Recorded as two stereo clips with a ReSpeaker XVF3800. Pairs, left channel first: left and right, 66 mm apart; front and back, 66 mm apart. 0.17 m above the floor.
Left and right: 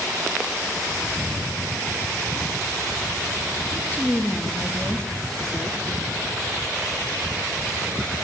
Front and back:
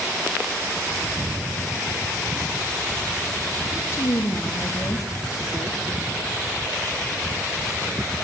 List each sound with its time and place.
3.7 s a woman speaking: 35° left, 2 m; by 5.8 s 10° right, 3 m